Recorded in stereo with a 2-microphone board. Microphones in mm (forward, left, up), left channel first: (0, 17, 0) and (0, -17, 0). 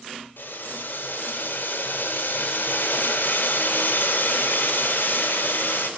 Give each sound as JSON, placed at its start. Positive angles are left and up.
{"t": 0.4, "sound": "boiling", "side_deg": 80, "distance_m": 2.0}